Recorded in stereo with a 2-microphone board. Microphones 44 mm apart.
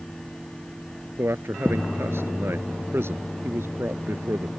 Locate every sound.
1.2 s a man speaking: 65° right (ahead or behind)